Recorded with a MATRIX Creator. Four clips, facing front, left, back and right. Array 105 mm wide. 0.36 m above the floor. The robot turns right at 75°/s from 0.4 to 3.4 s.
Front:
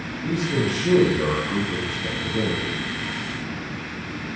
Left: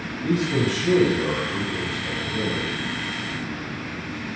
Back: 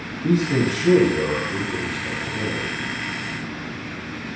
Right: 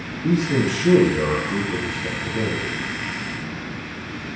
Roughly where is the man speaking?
Behind right.